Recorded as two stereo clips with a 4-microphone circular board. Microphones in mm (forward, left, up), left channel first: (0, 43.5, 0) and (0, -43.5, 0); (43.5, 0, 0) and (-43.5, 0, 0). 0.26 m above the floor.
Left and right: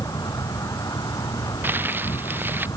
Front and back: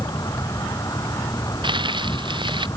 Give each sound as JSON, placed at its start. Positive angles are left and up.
{"t": 0.0, "sound": "an insect", "azimuth_deg": 45}
{"t": 1.6, "sound": "crumpling", "azimuth_deg": -155}